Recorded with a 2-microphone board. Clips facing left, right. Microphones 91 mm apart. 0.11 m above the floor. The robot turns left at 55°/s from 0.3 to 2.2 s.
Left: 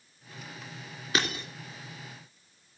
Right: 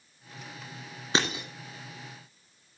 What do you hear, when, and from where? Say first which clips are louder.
1.1 s breaking glass: right 2 dB; 30° right (ahead or behind), 2.5 m; by 1.4 s 15° right (ahead or behind), 2.5 m